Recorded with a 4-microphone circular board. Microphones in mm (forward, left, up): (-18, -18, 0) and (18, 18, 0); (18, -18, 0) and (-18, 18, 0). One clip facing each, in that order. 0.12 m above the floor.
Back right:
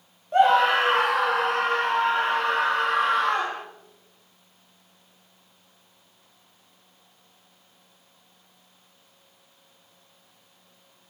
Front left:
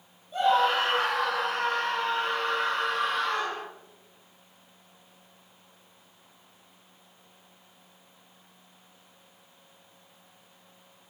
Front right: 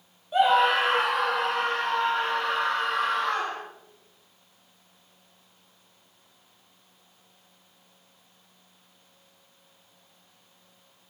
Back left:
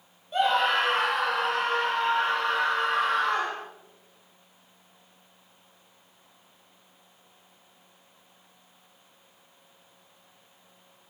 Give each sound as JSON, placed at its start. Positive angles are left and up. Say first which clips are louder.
{"t": 0.3, "sound": "a scream", "louder": "back right 5 dB, front right 3 dB", "azimuth_deg": -130, "distance_m": 3.0}